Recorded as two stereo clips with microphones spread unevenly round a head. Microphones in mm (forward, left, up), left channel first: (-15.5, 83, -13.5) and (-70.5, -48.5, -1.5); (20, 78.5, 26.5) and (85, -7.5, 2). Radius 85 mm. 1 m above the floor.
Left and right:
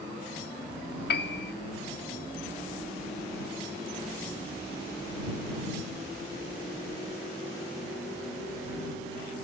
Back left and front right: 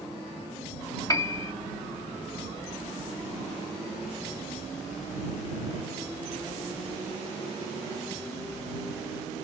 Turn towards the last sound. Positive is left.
turn(degrees=65)